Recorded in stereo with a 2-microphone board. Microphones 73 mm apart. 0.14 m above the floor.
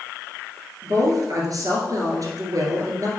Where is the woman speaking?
55° right (ahead or behind), 2.5 m.